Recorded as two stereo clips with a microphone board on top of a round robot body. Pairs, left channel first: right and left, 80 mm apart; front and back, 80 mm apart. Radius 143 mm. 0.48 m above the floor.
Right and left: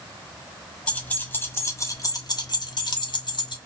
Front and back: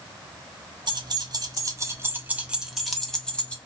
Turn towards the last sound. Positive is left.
turn(degrees=-75)